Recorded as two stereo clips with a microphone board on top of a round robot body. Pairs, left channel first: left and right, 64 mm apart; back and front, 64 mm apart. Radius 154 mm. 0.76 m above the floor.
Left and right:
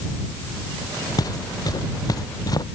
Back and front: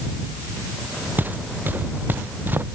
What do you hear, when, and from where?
1.2 s footsteps: 65° left